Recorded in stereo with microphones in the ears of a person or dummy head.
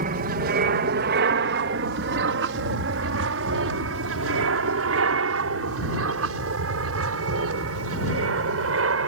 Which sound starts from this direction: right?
An aircraft, at 0.0 s.